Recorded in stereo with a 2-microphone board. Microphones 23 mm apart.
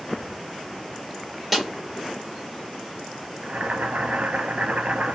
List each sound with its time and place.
1.5 s a snare drum: 10° right (ahead or behind), 1.2 m
3.4 s boiling: 80° right, 0.6 m